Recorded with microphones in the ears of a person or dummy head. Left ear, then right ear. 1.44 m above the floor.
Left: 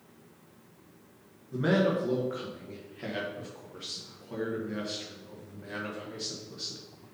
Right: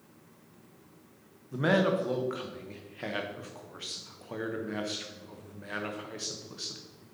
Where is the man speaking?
25° right (ahead or behind), 1.0 m.